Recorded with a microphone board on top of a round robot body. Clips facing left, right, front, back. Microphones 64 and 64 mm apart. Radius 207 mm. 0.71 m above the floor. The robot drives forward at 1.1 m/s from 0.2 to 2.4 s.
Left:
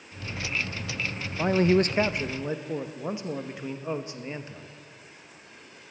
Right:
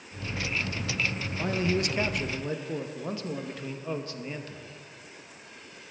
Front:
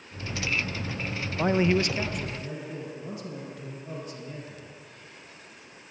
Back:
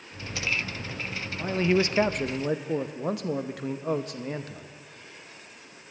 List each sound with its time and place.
1.4 s a man speaking: 40° left, 0.6 m; by 4.7 s 160° left, 0.9 m